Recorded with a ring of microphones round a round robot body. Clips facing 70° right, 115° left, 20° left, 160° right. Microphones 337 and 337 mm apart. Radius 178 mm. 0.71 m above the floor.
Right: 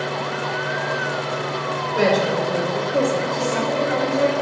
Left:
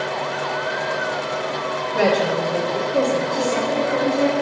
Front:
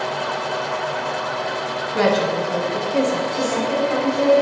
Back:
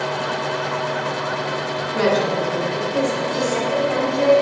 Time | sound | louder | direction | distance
1.9 | a woman speaking | even, even | 20° left | 1.3 m
3.3 | a woman speaking | left 1 dB, back 1 dB | 160° left | 1.9 m